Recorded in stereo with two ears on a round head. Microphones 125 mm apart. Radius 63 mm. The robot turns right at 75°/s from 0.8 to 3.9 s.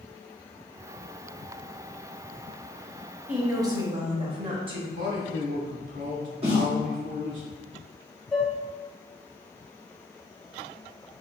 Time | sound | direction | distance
3.3 | a woman speaking | 170° right | 0.9 m
4.9 | a man speaking | 65° right (ahead or behind) | 1.4 m
6.4 | a snare drum | 45° right (ahead or behind) | 1.7 m
8.3 | dishes clattering | 5° left (ahead or behind) | 0.8 m